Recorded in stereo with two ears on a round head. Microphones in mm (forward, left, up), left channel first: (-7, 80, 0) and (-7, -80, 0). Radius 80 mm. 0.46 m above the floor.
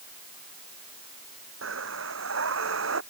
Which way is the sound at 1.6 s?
90° right.